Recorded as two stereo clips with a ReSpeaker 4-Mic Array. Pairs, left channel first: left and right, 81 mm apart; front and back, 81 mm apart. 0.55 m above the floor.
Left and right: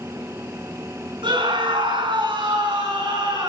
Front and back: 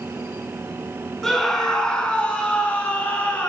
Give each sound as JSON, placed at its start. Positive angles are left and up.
{"t": 1.2, "sound": "a scream", "azimuth_deg": -85, "distance_m": 5.0}